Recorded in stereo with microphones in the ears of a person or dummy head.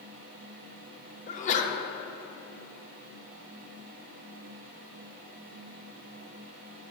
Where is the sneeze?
35° left (ahead or behind), 0.9 m.